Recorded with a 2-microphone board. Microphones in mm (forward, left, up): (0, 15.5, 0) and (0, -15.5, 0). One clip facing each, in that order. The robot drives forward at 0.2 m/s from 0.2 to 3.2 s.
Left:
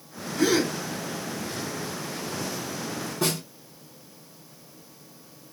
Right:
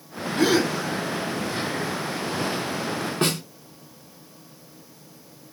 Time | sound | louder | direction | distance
0.4 | a gasp | right 2 dB | 65° right (ahead or behind) | 1.0 m
3.2 | a snare drum | right 2 dB | 55° right (ahead or behind) | 0.9 m